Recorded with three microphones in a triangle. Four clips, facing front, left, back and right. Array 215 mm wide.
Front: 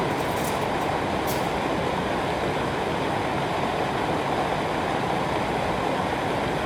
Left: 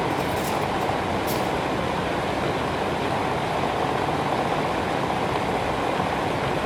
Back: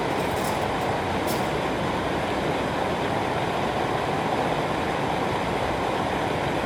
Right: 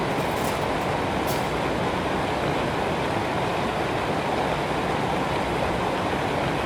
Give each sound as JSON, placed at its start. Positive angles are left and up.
{"t": 0.1, "sound": "cutlery clinking", "azimuth_deg": -95, "distance_m": 5.5}